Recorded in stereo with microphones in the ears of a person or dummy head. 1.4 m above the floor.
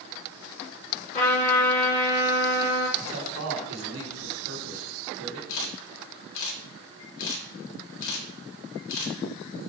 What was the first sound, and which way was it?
A trumpet, 40° left (ahead or behind).